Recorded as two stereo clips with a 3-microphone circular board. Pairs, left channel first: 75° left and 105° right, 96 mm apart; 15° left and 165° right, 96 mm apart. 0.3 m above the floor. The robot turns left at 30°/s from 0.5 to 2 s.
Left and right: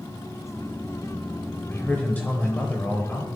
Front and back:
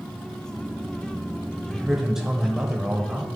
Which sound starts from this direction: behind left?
A man speaking, at 1.7 s.